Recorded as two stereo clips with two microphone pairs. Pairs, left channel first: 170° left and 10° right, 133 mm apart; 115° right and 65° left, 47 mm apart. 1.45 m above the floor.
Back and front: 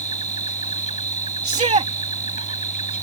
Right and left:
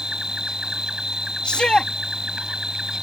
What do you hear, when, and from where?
0.0 s an insect: 145° left
1.4 s a shout: 40° right